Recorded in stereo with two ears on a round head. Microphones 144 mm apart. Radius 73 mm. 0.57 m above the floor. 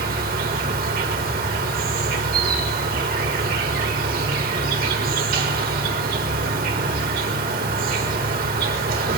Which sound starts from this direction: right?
An insect, at 0.0 s.